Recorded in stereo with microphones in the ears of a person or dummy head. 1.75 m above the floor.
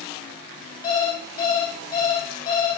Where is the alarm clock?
25° left (ahead or behind), 2 m.